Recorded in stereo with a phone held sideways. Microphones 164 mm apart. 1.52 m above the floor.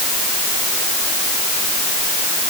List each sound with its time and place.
Only background noise.